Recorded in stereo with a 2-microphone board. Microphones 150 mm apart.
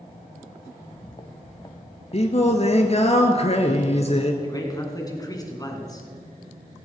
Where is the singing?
45° left (ahead or behind), 1.1 m.